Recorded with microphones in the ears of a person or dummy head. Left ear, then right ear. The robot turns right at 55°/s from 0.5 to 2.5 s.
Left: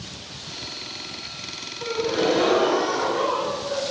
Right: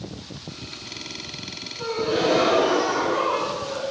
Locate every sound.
1.8 s a gasp: 150° right, 3 m; by 3.8 s 110° right, 3 m